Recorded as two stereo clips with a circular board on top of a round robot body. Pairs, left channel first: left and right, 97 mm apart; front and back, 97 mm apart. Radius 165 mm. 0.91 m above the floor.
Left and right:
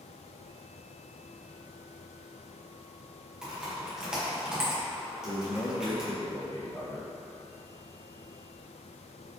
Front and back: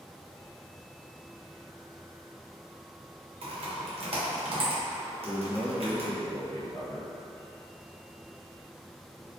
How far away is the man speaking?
About 1.3 m.